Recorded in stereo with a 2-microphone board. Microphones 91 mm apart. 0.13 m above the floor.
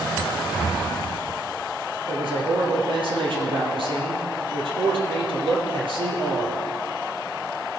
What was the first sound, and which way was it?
A man speaking, 70° right (ahead or behind).